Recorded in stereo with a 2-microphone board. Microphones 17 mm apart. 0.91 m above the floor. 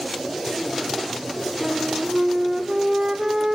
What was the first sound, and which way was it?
A flute, 50° right (ahead or behind).